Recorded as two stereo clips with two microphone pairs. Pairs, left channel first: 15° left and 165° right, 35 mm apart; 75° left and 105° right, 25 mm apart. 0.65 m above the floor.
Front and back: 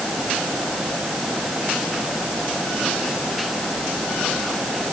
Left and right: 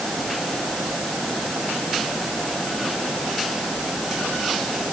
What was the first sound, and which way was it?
Only background noise.